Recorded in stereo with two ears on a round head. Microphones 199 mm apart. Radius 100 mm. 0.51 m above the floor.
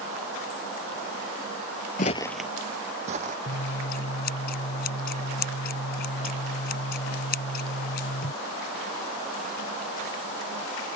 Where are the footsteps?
40° left (ahead or behind); by 3.4 s 35° right (ahead or behind).